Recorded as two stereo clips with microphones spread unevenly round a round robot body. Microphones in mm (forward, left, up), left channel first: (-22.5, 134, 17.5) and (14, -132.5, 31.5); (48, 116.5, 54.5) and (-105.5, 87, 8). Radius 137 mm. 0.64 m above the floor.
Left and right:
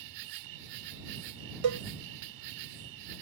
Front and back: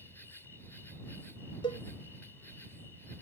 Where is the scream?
I don't hear a scream.